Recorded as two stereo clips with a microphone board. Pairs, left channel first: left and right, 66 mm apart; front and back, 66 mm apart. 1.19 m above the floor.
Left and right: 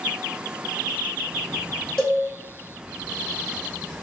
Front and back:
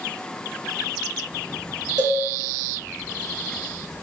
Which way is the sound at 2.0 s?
170° left.